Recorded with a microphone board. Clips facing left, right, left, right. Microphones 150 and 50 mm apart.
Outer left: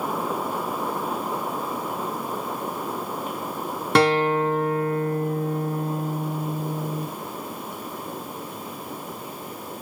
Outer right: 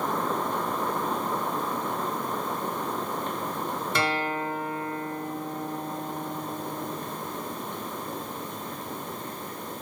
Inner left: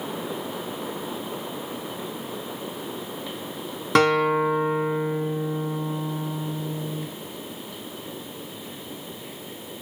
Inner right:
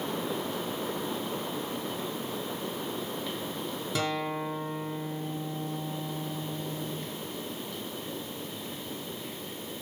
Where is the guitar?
70° left (ahead or behind), 0.9 m.